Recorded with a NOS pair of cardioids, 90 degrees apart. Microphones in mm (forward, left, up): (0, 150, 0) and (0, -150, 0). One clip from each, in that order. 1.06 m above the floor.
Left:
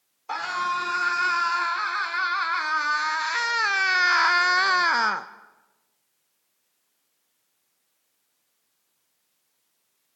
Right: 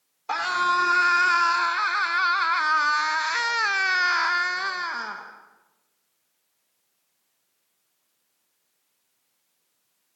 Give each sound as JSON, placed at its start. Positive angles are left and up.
{"t": 0.3, "sound": "a scream", "azimuth_deg": -30, "distance_m": 4.0}